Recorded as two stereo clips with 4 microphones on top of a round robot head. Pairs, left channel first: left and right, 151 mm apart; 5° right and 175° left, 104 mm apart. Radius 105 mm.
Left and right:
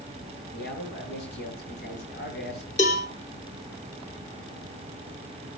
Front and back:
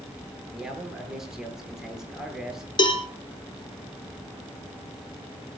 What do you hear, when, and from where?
0.5 s a man speaking: 90° left, 9.5 m
2.8 s a cowbell: 40° left, 3.5 m